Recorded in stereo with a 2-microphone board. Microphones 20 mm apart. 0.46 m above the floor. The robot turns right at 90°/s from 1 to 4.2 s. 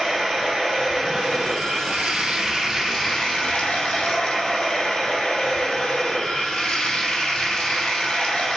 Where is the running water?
170° right, 2.5 m; by 8.6 s 120° left, 2.5 m.